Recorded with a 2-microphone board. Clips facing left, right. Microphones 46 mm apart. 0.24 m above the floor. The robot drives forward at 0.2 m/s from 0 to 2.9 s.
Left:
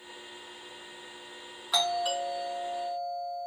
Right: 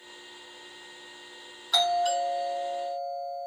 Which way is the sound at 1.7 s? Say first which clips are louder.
Right 4 dB; 15° left (ahead or behind).